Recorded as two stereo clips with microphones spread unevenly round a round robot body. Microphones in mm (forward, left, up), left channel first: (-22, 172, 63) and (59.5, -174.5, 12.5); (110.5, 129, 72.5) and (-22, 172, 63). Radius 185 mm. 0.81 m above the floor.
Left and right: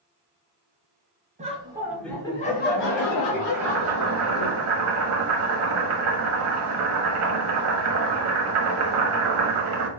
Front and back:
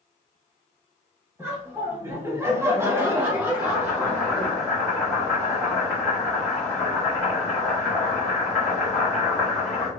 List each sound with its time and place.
1.4 s laughter: 130° right, 1.1 m; by 4.5 s 85° left, 1.6 m
3.5 s boiling: 105° right, 1.1 m